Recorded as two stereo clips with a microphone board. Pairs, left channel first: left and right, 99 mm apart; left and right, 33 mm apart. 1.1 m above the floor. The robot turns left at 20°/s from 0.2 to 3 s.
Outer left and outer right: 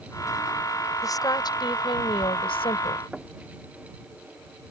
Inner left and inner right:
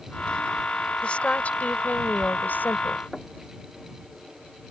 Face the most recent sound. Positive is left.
turn(degrees=-10)  # may be behind; listen again after turning